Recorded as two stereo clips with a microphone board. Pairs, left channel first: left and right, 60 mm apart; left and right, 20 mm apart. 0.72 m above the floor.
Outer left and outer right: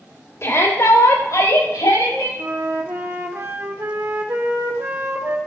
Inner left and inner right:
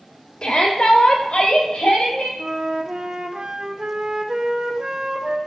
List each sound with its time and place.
0.4 s a shout: 50° left (ahead or behind), 2 m; by 2.3 s 75° left (ahead or behind), 4.5 m
2.4 s a flute: 40° right (ahead or behind), 0.8 m